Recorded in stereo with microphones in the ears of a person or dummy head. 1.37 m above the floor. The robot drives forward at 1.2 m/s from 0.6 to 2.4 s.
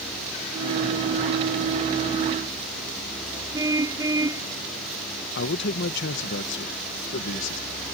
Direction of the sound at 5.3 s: 55° left (ahead or behind).